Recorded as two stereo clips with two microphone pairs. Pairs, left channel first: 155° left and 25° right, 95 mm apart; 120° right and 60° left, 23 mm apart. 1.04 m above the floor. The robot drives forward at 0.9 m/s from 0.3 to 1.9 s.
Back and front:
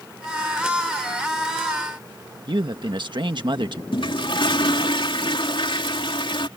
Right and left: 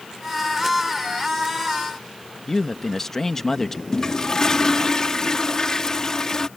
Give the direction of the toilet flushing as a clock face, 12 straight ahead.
6 o'clock.